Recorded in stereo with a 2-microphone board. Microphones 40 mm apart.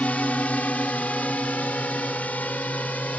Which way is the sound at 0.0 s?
35° left (ahead or behind).